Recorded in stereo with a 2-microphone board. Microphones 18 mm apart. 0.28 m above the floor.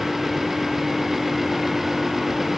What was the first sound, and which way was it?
Only background noise.